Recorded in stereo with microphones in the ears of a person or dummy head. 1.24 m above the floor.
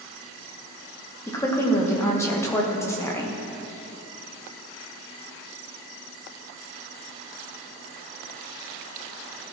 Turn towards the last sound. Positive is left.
turn(degrees=10)  # may be behind; listen again after turning